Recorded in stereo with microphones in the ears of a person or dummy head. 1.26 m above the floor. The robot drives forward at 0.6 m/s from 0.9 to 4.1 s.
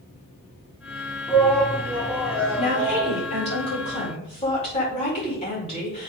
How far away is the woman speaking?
About 4.5 m.